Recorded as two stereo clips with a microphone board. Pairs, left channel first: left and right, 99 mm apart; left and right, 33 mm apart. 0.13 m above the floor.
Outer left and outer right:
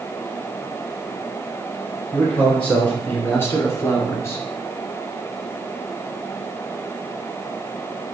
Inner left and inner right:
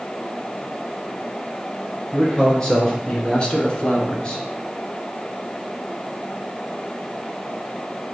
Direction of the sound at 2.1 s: 10° left (ahead or behind).